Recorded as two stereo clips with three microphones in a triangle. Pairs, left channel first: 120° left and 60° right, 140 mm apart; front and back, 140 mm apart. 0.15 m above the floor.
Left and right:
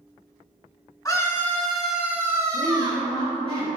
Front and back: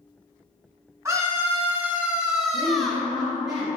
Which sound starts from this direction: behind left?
A scream, at 1.1 s.